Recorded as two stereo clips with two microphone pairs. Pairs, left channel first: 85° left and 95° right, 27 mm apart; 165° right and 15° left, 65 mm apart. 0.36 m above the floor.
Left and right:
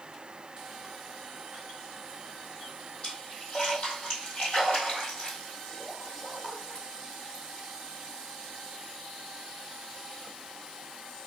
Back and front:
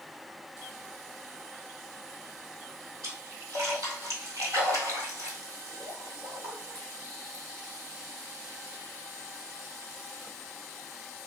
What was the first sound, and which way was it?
A splash, 40° left.